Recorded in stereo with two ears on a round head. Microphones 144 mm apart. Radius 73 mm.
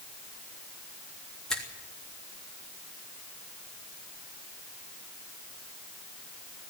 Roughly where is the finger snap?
Centre.